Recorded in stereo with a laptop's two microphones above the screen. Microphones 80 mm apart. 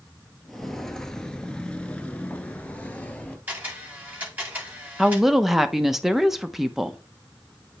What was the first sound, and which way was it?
Footsteps, centre (ahead or behind).